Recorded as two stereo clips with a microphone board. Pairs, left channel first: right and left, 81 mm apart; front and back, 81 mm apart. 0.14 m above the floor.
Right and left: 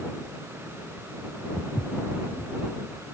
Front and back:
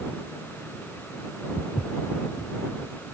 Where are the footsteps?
5° right.